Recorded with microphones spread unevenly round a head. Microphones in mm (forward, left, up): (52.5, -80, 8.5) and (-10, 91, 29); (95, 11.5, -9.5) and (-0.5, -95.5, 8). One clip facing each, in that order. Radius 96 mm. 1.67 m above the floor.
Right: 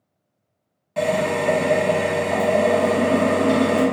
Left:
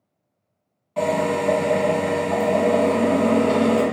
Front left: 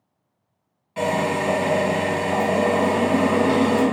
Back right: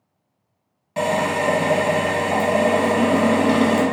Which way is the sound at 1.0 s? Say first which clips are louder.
Even, back right 1 dB; 145° right.